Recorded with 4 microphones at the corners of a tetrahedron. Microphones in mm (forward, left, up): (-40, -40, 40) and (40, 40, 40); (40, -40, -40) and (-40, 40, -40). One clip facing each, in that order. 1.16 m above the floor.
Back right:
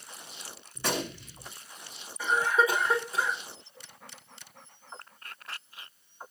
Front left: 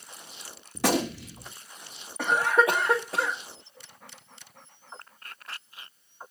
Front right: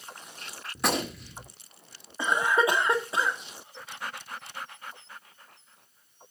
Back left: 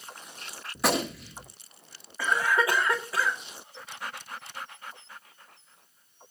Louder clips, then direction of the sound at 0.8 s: Front left 7 dB, back left 2 dB; 45° left.